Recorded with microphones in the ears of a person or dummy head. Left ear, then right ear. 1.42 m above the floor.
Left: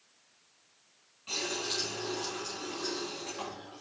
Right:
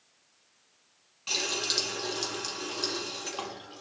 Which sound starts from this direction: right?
A running tap, at 1.3 s.